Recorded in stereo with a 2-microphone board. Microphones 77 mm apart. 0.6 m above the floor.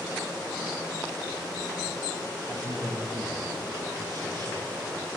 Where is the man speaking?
55° right (ahead or behind), 8 m.